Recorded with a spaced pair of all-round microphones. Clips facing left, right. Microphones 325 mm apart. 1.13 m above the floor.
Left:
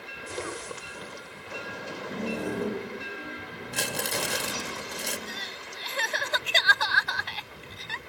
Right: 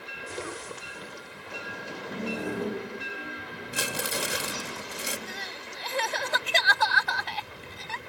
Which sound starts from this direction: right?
Crying, at 5.3 s.